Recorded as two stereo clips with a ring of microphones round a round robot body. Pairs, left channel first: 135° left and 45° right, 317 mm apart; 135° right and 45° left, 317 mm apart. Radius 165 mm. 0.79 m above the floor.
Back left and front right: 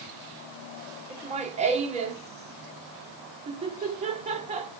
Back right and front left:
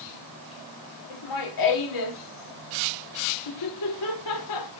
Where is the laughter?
115° right, 2.5 m.